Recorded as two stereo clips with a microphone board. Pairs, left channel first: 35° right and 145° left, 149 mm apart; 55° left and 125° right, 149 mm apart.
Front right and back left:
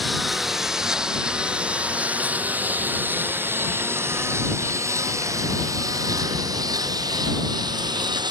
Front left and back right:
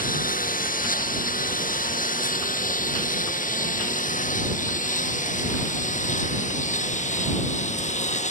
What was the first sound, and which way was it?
A lawn mower, 55° left.